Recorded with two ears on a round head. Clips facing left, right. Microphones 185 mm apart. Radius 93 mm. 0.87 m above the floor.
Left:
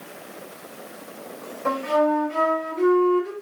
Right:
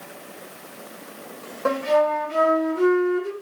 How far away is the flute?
About 3 m.